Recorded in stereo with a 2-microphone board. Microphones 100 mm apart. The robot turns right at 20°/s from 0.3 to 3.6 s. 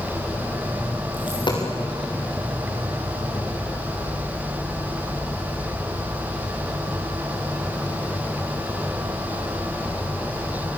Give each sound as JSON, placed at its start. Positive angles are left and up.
{"t": 1.1, "sound": "a dropped coin", "side_deg": 55, "distance_m": 6.0}